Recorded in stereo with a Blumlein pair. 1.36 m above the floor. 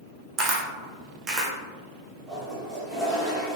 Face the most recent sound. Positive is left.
turn(degrees=-5)